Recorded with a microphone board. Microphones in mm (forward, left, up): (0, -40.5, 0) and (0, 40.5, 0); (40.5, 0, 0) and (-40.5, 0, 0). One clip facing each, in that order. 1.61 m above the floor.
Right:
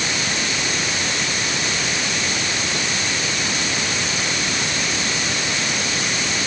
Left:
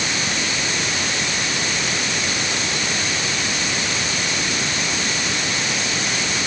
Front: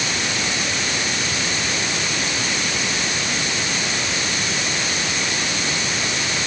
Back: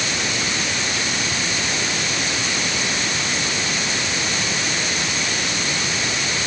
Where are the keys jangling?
I don't hear keys jangling.